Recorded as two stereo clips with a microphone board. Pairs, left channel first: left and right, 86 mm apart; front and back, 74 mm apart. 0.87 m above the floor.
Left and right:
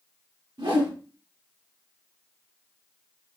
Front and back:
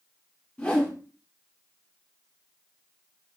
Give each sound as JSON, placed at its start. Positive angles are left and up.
{"t": 0.6, "sound": "a whoosh", "azimuth_deg": -75, "distance_m": 1.3}